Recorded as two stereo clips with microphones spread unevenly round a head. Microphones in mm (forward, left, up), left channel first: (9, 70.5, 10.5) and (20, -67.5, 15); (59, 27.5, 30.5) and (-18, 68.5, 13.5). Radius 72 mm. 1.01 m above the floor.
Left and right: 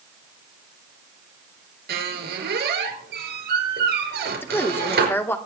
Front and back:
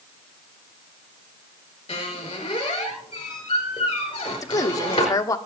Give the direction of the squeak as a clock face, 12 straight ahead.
3 o'clock.